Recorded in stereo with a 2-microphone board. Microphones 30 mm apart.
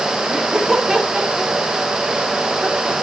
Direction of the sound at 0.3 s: Centre (ahead or behind).